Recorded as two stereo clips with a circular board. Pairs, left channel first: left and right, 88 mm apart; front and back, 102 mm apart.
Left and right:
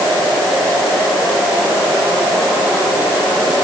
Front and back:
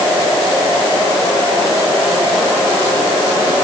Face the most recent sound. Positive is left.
No sound to turn to.